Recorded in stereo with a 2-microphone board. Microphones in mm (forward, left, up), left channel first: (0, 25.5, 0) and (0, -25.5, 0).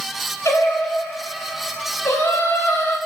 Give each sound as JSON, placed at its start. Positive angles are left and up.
{"t": 0.5, "sound": "singing", "side_deg": 85, "distance_m": 3.0}